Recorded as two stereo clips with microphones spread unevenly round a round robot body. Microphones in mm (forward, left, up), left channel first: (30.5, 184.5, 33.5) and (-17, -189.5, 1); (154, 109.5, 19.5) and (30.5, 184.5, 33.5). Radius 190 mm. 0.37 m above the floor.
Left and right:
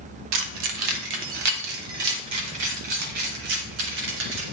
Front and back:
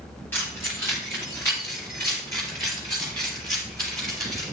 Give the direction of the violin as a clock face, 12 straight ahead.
No violin in this recording.